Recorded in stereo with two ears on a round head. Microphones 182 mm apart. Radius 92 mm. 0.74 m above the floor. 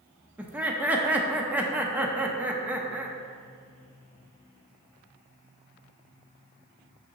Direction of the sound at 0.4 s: 5° right (ahead or behind).